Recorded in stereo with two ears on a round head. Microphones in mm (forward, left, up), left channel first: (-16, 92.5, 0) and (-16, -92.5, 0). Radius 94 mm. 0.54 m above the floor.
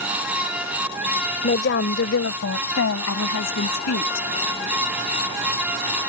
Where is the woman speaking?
45° left (ahead or behind); by 4.3 s 80° left.